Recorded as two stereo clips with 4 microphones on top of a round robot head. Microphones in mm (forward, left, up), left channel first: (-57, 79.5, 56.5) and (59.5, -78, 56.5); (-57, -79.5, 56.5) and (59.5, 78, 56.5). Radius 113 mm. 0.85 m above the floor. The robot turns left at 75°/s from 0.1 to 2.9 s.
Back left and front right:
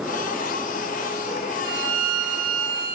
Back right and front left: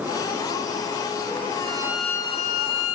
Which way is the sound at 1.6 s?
10° right.